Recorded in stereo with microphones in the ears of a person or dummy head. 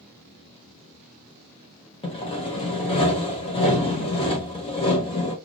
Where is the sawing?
30° left (ahead or behind), 1.3 m.